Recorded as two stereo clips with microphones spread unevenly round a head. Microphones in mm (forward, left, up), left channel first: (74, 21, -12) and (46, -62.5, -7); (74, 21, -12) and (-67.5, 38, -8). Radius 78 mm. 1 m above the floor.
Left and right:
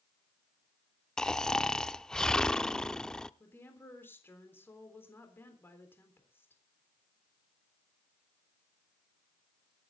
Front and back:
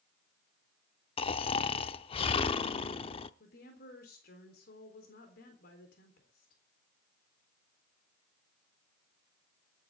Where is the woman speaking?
5° left, 4 m.